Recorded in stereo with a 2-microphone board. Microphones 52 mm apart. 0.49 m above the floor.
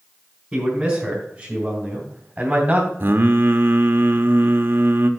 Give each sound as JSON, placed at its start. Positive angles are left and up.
{"t": 0.5, "sound": "a man speaking", "side_deg": -10, "distance_m": 3.5}
{"t": 3.0, "sound": "singing", "side_deg": -40, "distance_m": 0.9}